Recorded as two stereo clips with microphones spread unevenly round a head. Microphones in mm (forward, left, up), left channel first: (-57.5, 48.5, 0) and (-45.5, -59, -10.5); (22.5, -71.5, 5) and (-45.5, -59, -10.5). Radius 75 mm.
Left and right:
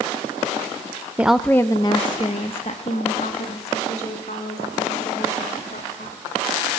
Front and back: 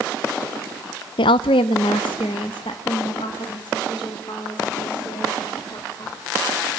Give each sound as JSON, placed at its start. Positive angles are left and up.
{"t": 1.2, "sound": "a woman speaking", "azimuth_deg": -5, "distance_m": 0.7}